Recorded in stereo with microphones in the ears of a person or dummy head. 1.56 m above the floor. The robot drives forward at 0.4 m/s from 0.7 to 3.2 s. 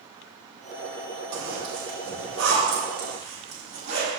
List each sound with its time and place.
1.3 s a zipper: 75° right (ahead or behind), 2.5 m; by 4.1 s 60° right (ahead or behind), 3 m